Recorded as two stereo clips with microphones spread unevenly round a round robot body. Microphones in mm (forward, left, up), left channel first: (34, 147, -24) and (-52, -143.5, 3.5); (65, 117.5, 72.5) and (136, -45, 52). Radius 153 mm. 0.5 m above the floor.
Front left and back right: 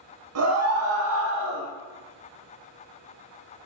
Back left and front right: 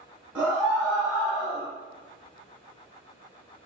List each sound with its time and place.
0.3 s a scream: 145° right, 2.5 m